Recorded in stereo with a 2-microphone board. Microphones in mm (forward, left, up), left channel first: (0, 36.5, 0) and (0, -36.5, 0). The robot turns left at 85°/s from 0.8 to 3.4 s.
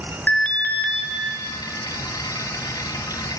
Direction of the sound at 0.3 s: 20° left (ahead or behind).